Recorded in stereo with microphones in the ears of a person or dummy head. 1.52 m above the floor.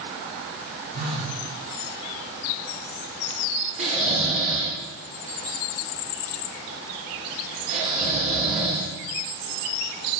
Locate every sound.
0.9 s a phone buzzing: 45° right (ahead or behind), 1.6 m
3.8 s snoring: 45° right (ahead or behind), 2 m